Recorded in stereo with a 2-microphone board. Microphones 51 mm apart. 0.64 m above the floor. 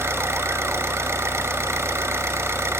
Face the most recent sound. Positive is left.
turn(degrees=-60)  # may be behind; listen again after turning